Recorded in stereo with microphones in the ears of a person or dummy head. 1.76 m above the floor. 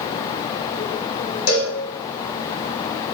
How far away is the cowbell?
About 1.2 m.